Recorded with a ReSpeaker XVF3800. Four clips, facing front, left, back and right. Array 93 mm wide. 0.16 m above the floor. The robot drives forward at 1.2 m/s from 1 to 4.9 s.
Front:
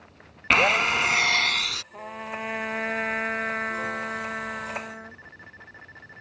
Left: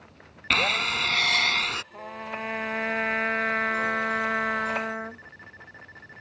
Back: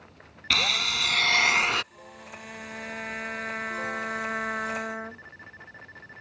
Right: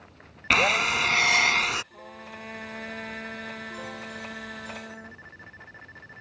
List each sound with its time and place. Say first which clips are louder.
0.5 s a drill: right 3 dB, front 8 dB; 20° right; by 1.8 s 165° right
1.9 s a trumpet: left 7 dB, front 10 dB; 35° left; by 5.2 s 115° left